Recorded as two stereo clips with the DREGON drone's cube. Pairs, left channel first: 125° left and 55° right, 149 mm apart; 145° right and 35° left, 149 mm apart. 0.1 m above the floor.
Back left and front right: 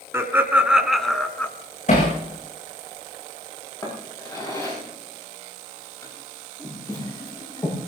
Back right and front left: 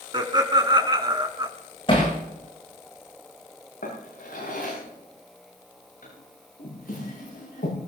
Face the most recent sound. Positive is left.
turn(degrees=-165)